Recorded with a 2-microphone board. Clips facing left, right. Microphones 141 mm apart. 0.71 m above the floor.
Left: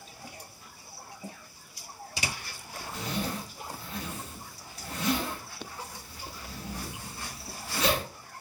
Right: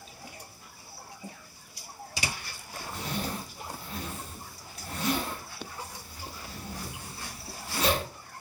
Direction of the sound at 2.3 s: 30° right (ahead or behind).